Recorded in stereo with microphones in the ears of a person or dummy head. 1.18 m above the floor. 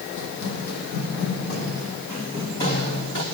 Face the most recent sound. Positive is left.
turn(degrees=35)  # may be behind; listen again after turning